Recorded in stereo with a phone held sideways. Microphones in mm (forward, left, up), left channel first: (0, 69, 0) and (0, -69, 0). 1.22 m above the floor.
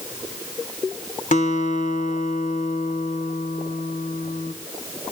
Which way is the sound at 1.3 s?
65° left (ahead or behind).